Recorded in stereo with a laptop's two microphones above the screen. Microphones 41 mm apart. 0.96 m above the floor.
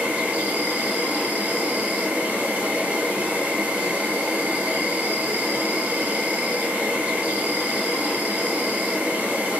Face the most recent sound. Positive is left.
turn(degrees=-40)  # may be behind; listen again after turning